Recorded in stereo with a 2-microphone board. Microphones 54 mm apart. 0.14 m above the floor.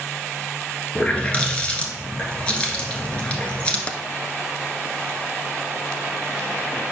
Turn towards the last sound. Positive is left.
turn(degrees=25)  # may be behind; listen again after turning